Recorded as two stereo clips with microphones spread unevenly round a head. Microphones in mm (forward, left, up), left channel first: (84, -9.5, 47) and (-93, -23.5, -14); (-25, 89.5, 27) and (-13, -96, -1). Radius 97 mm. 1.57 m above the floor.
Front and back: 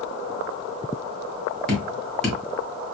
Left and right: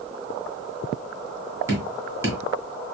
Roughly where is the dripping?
Ahead.